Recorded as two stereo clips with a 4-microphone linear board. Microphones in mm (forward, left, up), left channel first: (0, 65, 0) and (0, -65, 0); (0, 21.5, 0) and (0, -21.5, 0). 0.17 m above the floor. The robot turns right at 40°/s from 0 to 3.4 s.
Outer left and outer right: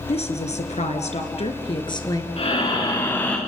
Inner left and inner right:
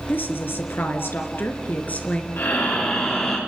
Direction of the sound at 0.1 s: 65° left.